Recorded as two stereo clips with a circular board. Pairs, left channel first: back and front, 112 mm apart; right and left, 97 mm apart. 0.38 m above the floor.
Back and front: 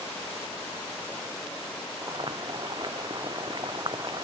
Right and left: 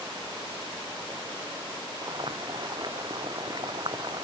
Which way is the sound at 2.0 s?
50° left.